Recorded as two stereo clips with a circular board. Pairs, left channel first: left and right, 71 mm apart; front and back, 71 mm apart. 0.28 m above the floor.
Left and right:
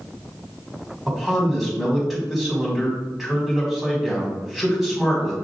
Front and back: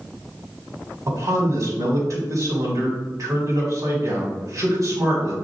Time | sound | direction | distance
1.1 | a man speaking | 175° right | 1.9 m